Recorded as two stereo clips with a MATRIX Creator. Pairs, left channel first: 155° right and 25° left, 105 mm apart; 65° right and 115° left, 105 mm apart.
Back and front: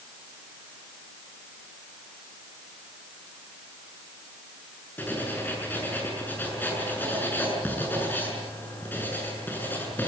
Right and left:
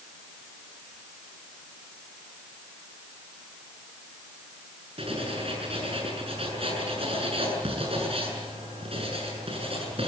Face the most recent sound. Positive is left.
turn(degrees=130)